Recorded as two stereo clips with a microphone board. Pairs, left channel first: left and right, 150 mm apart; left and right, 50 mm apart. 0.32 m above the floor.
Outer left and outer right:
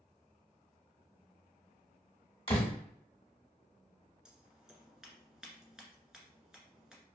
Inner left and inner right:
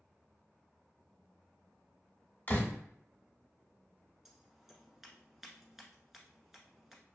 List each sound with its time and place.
2.5 s a door slam: 35° left (ahead or behind), 0.7 m
4.2 s scissors: 5° right (ahead or behind), 0.8 m